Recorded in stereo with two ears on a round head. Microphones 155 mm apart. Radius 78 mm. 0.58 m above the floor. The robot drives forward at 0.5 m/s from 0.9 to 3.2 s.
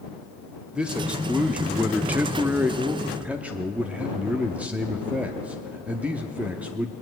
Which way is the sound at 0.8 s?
5° right (ahead or behind).